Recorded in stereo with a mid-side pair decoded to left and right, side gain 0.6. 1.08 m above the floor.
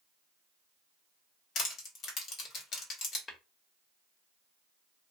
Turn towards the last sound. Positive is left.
turn(degrees=25)